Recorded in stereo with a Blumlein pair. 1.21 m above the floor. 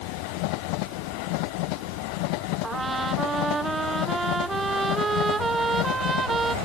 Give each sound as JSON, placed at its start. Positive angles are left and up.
{"t": 2.6, "sound": "a trumpet", "azimuth_deg": -15}